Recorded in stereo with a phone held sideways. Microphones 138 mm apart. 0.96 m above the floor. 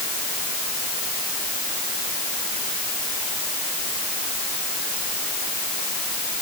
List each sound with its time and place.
Only background noise.